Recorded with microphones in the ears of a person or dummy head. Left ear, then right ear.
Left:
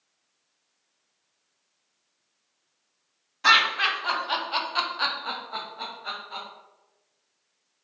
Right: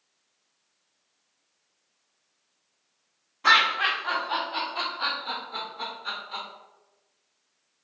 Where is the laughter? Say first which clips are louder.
Even; 45° left (ahead or behind), 1.2 m; by 6.5 s 5° left (ahead or behind), 1.0 m.